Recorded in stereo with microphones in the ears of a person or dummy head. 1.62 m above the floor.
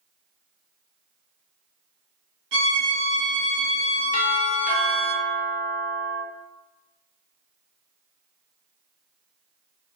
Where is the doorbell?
35° left (ahead or behind), 0.7 m.